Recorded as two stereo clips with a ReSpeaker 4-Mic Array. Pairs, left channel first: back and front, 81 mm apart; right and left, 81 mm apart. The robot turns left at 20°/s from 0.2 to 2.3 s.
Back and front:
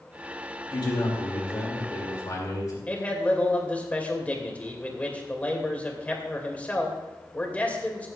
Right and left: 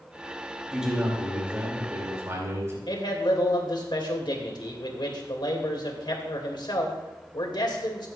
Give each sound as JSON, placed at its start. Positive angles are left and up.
{"t": 0.7, "sound": "a man speaking", "azimuth_deg": 175, "distance_m": 2.5}
{"t": 2.9, "sound": "a man speaking", "azimuth_deg": -110, "distance_m": 2.5}